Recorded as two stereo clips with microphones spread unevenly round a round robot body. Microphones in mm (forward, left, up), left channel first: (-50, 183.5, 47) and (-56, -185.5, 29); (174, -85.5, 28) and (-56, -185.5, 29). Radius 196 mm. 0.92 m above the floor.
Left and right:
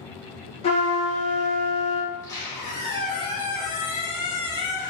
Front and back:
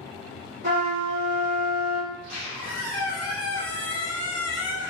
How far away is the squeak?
About 0.9 m.